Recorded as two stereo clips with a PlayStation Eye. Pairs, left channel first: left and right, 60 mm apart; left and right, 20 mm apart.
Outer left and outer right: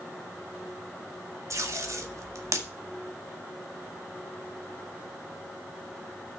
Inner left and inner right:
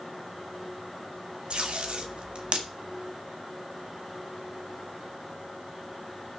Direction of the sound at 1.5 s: 60° right (ahead or behind).